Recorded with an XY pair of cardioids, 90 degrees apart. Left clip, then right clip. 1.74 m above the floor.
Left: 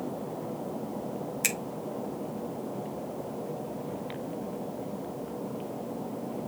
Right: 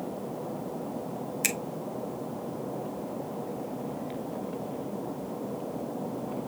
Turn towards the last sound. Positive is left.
turn(degrees=0)